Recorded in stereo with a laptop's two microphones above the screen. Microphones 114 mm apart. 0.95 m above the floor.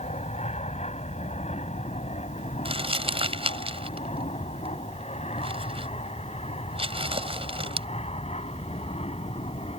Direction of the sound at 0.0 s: 75° left (ahead or behind).